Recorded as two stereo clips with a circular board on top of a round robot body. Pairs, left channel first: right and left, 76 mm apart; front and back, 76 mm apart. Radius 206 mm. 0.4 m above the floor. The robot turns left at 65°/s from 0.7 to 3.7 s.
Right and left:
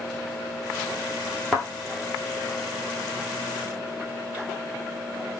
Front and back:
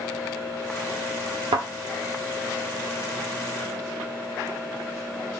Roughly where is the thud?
Behind.